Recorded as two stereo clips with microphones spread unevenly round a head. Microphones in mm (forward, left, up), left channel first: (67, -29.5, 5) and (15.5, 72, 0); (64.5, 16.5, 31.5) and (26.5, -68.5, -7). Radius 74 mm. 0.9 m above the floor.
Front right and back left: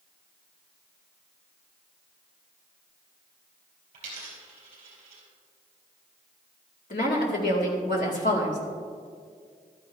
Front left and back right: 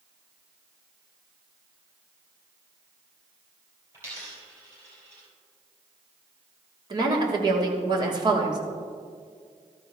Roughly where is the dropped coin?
Behind.